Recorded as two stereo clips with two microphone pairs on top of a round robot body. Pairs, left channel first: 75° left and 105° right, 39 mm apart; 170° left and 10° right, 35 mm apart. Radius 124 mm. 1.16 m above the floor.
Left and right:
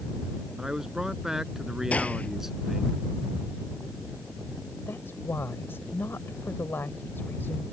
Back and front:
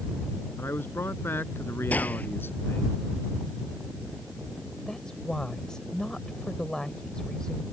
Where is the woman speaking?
100° left.